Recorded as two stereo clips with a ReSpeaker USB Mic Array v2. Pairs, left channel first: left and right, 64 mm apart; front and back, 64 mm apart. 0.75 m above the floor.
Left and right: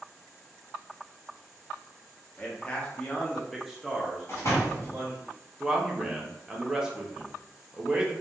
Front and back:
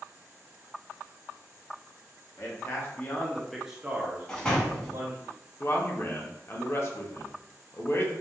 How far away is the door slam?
About 0.7 m.